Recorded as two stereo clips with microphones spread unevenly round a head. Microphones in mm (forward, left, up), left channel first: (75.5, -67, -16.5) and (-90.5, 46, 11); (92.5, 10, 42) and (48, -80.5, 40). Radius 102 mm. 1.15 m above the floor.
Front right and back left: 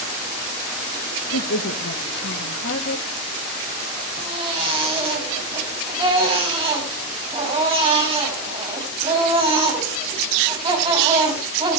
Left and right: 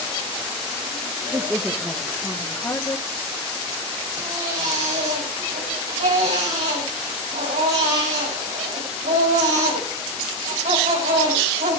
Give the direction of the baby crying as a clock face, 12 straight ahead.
5 o'clock.